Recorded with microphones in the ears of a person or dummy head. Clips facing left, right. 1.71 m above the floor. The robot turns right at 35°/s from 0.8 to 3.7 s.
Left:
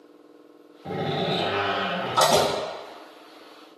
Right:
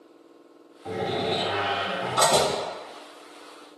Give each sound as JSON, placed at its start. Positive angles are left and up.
{"t": 0.8, "sound": "a door slam", "azimuth_deg": 45, "distance_m": 1.6}